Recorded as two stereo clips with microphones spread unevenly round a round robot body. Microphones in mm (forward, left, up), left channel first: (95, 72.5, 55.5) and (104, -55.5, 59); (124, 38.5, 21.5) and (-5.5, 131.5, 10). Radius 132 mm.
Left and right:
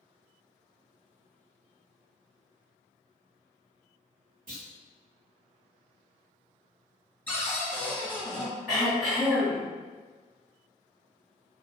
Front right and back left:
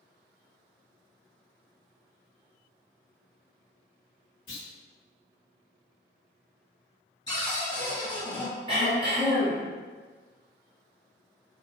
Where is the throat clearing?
165° right, 1.7 m.